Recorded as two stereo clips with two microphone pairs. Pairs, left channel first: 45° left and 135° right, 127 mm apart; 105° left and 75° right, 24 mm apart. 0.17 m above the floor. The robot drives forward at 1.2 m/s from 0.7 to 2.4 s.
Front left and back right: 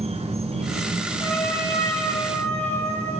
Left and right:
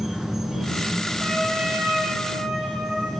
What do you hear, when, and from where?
0.0 s an insect: 145° right, 2.5 m; by 3.2 s 165° right, 4 m
1.2 s a trumpet: 25° right, 9.5 m; by 3.1 s 30° right, 8 m